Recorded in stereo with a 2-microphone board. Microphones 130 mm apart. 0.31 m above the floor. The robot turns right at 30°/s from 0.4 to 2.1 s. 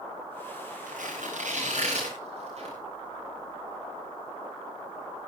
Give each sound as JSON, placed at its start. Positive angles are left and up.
{"t": 0.9, "sound": "tearing paper", "side_deg": -90, "distance_m": 10.0}